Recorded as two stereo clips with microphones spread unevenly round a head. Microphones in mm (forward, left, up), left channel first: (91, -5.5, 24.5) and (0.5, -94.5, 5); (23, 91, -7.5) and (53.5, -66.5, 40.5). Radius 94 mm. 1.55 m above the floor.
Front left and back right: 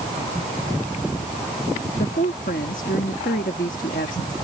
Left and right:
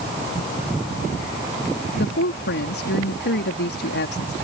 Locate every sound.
1.9 s a woman speaking: 85° left